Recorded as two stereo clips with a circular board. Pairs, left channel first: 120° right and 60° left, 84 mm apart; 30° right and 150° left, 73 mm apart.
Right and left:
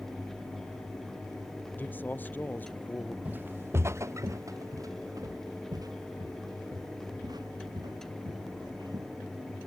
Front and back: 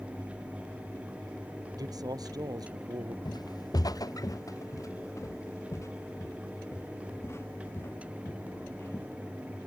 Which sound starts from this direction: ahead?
Footsteps, at 3.2 s.